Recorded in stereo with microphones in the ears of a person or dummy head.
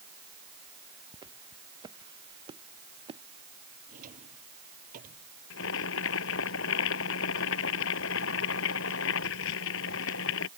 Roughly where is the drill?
I don't hear a drill.